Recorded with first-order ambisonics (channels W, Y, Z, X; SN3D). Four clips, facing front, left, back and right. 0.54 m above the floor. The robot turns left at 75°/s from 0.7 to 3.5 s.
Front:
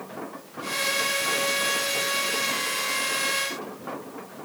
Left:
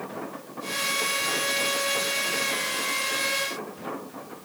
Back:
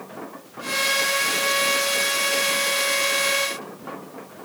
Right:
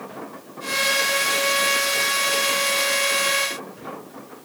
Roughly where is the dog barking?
I don't hear a dog barking.